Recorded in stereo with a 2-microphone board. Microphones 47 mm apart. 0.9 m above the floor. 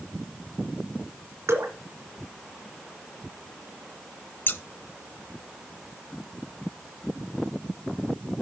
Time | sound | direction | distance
1.5 | dripping | 75° right (ahead or behind) | 2.5 m
4.5 | scissors | 50° left (ahead or behind) | 0.7 m